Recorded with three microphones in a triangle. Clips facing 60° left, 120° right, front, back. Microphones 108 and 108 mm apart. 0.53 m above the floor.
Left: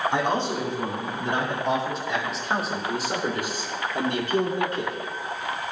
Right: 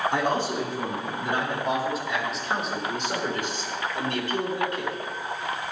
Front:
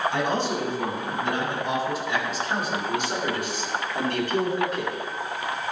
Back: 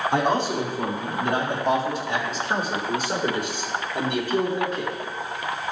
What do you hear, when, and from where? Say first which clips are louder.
0.1 s a man speaking: left 1 dB, back 3 dB; 160° left, 4.5 m; by 5.0 s 80° left, 1.6 m